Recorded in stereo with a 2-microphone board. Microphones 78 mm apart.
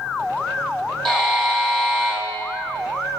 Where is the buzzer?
5° left (ahead or behind), 4 m.